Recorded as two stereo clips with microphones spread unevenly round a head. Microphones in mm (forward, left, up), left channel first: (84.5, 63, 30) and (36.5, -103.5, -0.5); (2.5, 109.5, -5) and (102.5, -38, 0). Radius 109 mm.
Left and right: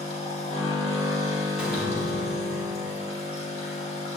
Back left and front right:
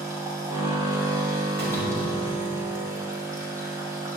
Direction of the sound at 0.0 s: 15° left.